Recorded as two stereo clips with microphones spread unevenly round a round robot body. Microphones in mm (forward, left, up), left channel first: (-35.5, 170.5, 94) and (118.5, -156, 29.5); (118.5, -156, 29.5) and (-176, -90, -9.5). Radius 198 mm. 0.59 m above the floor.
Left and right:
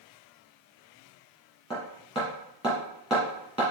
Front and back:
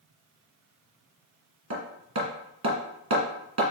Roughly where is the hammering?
Behind right.